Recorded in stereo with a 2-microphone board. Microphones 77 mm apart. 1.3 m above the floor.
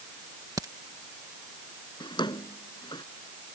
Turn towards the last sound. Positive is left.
turn(degrees=85)